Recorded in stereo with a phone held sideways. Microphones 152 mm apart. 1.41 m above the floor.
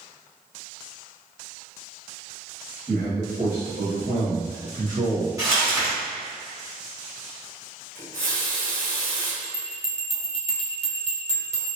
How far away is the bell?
About 0.7 m.